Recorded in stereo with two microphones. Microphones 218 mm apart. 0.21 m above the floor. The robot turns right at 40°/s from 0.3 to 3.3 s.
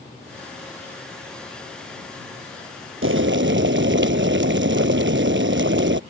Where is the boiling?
75° right (ahead or behind); by 6.0 s 60° right (ahead or behind).